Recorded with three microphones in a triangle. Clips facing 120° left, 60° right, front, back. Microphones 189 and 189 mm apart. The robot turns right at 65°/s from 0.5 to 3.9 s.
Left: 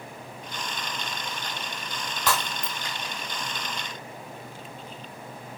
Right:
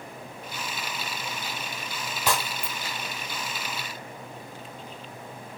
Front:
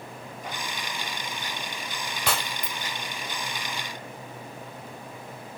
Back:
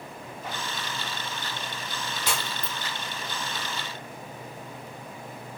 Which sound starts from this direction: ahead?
Breaking glass, at 2.3 s.